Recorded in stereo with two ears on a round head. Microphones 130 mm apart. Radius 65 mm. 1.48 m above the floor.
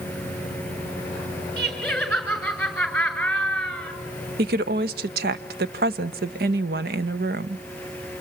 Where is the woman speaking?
70° right (ahead or behind), 1.1 m.